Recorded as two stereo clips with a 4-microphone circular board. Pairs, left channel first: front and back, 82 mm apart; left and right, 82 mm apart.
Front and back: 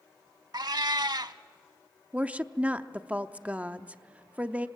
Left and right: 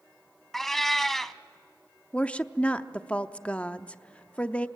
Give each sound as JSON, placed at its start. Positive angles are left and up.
{"t": 0.5, "sound": "a cat meowing", "azimuth_deg": 175, "distance_m": 0.6}
{"t": 2.1, "sound": "a woman speaking", "azimuth_deg": 140, "distance_m": 0.6}